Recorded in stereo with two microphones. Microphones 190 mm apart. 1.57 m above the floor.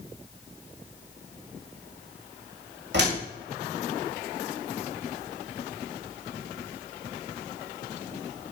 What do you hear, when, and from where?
2.9 s a door slam: 70° right (ahead or behind), 2 m